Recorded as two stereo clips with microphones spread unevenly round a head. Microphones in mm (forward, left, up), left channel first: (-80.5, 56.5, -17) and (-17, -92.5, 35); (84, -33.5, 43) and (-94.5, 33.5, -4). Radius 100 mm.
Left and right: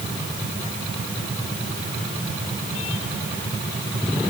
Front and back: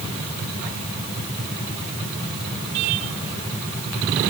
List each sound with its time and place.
Only background noise.